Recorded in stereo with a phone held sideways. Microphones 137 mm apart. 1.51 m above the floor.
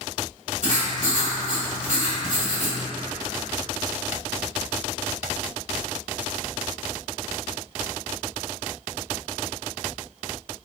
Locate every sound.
0.6 s writing: 55° right (ahead or behind), 1.1 m